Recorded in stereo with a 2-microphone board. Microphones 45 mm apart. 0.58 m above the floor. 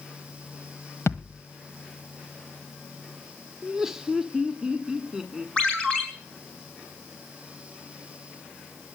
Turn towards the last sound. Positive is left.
turn(degrees=20)  # may be behind; listen again after turning